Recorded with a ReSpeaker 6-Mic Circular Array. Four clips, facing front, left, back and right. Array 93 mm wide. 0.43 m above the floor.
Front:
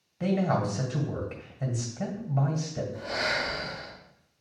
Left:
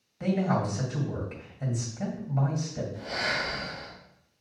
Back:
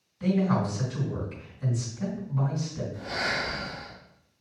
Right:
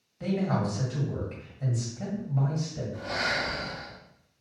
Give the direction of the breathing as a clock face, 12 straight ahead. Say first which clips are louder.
Right 3 dB, even; 2 o'clock.